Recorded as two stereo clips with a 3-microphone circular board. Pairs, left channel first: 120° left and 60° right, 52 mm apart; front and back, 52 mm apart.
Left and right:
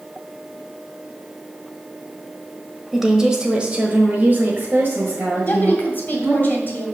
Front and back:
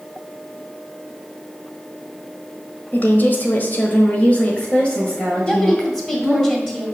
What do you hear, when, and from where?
2.9 s a woman speaking: 25° left, 1.1 m; by 6.4 s 80° right, 1.7 m
5.4 s a woman speaking: 75° left, 1.8 m